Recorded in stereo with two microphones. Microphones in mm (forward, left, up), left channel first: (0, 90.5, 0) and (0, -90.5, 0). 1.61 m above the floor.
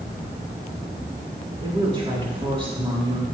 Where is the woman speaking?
30° right (ahead or behind), 4.5 m.